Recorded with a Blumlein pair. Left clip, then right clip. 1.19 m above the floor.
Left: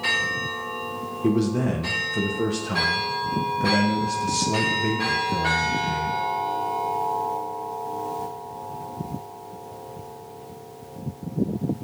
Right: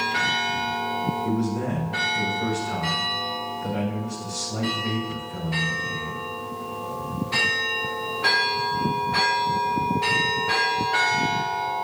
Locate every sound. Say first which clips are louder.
1.2 s a man speaking: left 3 dB; 50° left, 1.1 m